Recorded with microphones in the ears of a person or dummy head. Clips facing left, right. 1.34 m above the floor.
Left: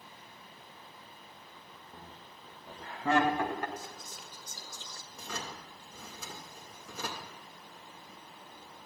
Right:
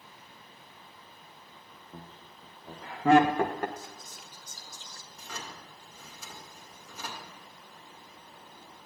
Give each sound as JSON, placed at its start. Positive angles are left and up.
{"t": 1.9, "sound": "laughter", "side_deg": -65, "distance_m": 1.7}
{"t": 3.8, "sound": "whispering", "side_deg": 65, "distance_m": 1.0}
{"t": 5.1, "sound": "a drawer", "side_deg": 65, "distance_m": 2.0}